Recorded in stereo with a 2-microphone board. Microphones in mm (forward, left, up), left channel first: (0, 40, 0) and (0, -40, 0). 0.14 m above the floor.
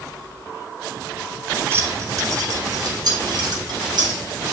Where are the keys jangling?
30° right (ahead or behind), 1.1 m; by 4.2 s 65° right (ahead or behind), 2.5 m.